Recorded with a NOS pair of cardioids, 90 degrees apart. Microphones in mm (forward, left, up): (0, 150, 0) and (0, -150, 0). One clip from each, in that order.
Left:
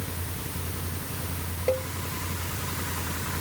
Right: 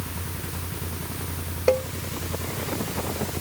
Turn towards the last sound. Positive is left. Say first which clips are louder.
# right 6 dB
turn(degrees=-55)